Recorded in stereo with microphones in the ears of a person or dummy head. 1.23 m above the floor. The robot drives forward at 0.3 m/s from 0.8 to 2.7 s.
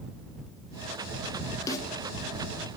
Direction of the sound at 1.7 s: 15° left (ahead or behind).